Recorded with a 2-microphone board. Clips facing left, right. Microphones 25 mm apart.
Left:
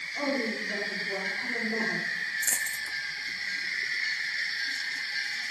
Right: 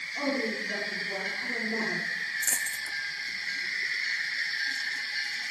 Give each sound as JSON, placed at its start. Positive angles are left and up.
{"t": 0.2, "sound": "a woman speaking", "side_deg": -20, "distance_m": 7.0}
{"t": 2.4, "sound": "a dropped coin", "side_deg": 10, "distance_m": 0.8}